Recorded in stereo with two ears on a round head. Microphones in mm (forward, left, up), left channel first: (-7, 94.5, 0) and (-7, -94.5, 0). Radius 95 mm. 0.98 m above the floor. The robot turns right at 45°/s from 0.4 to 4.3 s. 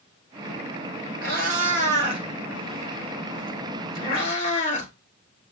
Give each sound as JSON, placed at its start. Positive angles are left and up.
{"t": 1.2, "sound": "a cat meowing", "side_deg": -50, "distance_m": 1.3}